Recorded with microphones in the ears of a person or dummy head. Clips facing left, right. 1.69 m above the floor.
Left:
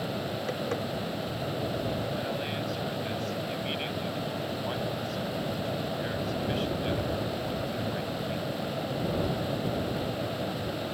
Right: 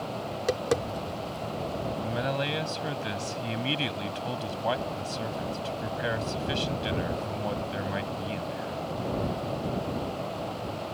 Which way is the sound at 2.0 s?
70° right (ahead or behind).